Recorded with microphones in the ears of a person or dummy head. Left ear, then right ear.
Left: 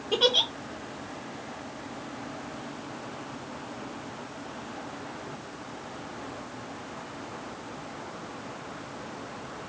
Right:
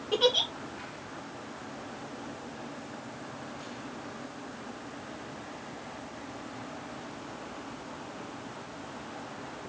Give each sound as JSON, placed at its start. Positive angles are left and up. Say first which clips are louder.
{"t": 0.1, "sound": "a giggle", "louder": "left 2 dB", "side_deg": 5, "distance_m": 0.5}